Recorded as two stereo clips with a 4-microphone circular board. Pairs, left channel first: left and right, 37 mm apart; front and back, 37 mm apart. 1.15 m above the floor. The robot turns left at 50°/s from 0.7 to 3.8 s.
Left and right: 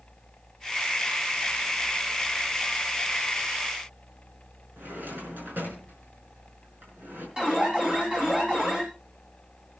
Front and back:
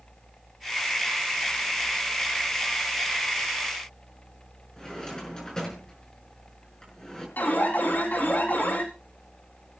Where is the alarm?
25° right, 4.5 m.